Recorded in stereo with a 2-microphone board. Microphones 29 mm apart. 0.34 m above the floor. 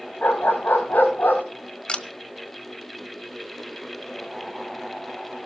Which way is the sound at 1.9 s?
40° left (ahead or behind).